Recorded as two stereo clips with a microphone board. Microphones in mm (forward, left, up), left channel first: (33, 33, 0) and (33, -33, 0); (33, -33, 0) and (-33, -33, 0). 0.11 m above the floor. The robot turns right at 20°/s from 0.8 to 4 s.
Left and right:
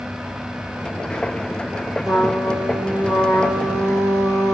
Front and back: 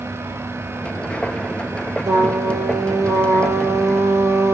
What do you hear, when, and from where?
2.0 s a trumpet: 175° right, 2.5 m; by 4.5 s 140° right, 2.5 m